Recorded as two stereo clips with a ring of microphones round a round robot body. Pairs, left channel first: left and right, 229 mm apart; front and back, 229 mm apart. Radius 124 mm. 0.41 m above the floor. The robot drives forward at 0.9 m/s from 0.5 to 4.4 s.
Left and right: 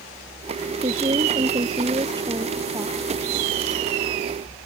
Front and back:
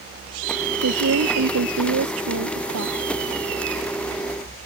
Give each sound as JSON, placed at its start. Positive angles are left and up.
{"t": 0.8, "sound": "a woman speaking", "azimuth_deg": -160}